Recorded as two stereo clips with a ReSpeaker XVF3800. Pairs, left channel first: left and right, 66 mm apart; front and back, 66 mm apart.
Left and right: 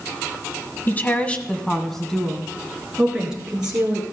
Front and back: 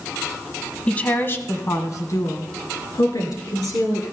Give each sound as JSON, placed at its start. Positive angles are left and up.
{"t": 0.9, "sound": "a woman speaking", "azimuth_deg": 60, "distance_m": 1.2}